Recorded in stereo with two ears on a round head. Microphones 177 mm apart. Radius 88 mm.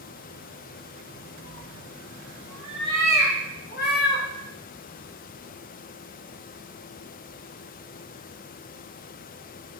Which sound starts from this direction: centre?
A cat meowing, at 1.4 s.